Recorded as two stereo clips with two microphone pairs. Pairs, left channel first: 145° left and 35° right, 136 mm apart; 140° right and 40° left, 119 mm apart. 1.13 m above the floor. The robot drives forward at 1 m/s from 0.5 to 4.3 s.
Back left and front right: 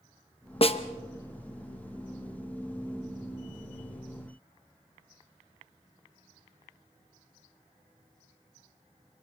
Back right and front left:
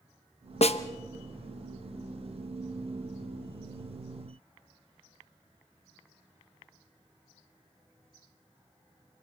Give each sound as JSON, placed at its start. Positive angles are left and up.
{"t": 0.6, "sound": "a snare drum", "azimuth_deg": -170, "distance_m": 0.8}